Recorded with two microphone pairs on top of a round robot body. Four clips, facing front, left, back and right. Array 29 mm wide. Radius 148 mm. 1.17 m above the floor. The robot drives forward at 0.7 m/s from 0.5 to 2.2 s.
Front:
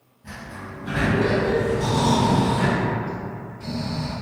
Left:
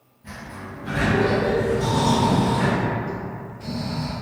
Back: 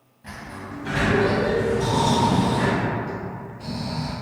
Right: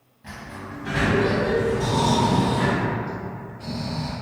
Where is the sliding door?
135° right, 0.6 m; by 2.8 s 165° right, 1.6 m.